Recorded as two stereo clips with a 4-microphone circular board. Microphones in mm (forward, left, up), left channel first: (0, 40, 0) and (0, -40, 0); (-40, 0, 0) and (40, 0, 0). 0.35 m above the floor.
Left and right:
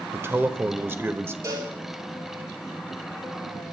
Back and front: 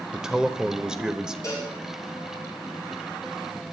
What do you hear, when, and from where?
0.1 s a man speaking: 75° right, 0.9 m
1.4 s a cowbell: 140° right, 8 m